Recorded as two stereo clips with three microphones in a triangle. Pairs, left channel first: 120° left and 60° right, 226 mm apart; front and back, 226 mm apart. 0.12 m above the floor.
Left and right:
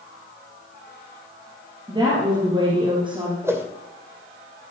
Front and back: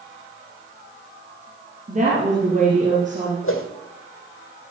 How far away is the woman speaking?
About 3.5 m.